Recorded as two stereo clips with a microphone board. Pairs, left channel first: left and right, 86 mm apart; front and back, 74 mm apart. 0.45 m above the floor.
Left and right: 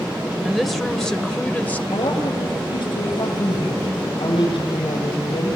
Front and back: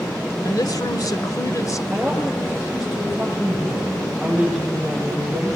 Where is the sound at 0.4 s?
Straight ahead, 2.5 m; by 1.8 s 25° left, 2 m.